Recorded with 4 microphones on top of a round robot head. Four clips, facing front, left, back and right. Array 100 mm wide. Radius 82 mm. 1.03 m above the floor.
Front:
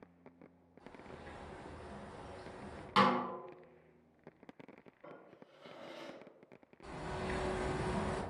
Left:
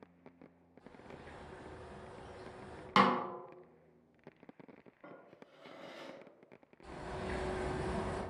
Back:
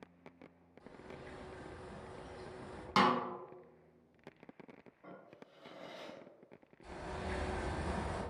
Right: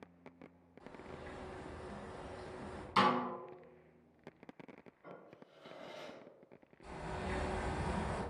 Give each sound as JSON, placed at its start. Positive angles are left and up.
{"t": 0.8, "sound": "a bird", "azimuth_deg": -75, "distance_m": 0.6}
{"t": 3.0, "sound": "a snare drum", "azimuth_deg": 105, "distance_m": 0.5}
{"t": 5.0, "sound": "a drawer", "azimuth_deg": 90, "distance_m": 1.5}
{"t": 6.8, "sound": "a bird", "azimuth_deg": 5, "distance_m": 1.4}